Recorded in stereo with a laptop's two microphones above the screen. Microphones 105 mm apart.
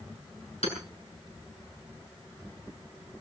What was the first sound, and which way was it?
Hammering, 75° left (ahead or behind).